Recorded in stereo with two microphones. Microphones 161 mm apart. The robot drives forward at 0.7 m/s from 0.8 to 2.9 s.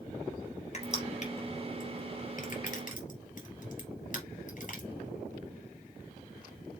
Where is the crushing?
45° left (ahead or behind), 3 m; by 4.9 s 55° left (ahead or behind), 2.5 m.